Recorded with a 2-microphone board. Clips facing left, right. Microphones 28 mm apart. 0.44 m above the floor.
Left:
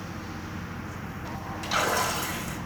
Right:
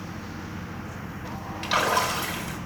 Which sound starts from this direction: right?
A splash, at 1.6 s.